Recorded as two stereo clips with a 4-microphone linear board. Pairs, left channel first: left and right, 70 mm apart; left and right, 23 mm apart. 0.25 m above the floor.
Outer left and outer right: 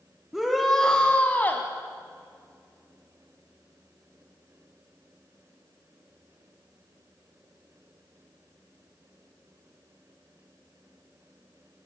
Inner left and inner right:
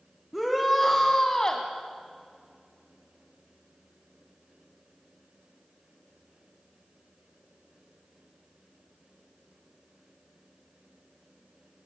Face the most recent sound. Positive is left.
turn(degrees=30)  # may be behind; listen again after turning